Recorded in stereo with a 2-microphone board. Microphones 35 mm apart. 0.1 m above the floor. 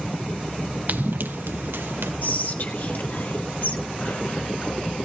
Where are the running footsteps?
55° right (ahead or behind), 0.7 m; by 2.1 s 85° right, 2.5 m.